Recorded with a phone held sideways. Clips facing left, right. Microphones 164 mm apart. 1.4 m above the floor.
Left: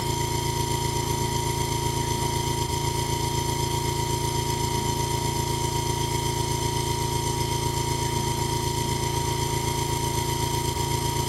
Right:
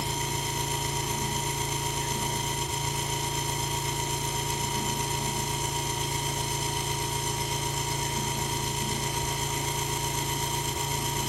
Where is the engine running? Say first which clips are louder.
Left 5 dB; 35° left (ahead or behind), 2.5 m.